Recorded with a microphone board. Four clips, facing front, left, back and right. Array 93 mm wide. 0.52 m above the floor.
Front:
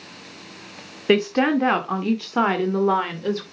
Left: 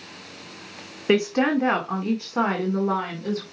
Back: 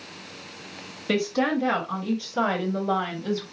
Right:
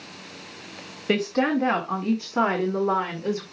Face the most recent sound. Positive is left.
turn(degrees=-15)